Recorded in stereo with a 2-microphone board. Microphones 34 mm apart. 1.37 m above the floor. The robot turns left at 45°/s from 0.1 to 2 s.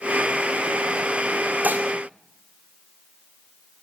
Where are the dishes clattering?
55° right (ahead or behind), 2 m; by 1.9 s 65° right (ahead or behind), 2 m.